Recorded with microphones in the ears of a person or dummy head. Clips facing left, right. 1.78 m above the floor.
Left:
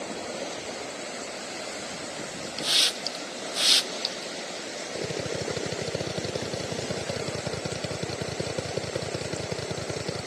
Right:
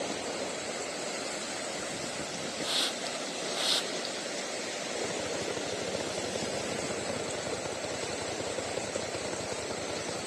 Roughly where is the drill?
Left.